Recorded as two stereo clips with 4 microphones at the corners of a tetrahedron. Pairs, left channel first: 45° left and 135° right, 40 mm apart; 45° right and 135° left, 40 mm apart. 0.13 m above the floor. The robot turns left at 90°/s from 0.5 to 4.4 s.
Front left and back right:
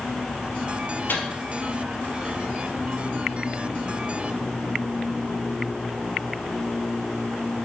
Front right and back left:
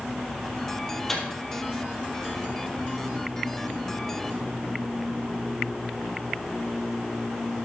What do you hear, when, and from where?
1.1 s a microwave: 35° left, 3 m; by 1.2 s 20° left, 3 m